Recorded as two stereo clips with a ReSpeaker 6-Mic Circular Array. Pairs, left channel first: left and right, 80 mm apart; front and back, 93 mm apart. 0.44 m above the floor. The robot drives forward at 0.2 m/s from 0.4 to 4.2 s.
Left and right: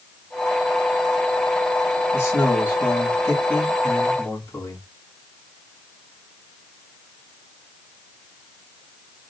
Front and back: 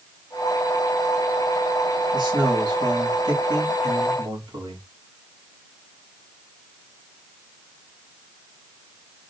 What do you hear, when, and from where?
2.1 s a man speaking: 150° left, 3.5 m